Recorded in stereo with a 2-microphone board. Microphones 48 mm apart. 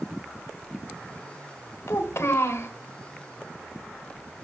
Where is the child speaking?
65° left (ahead or behind), 1.6 m.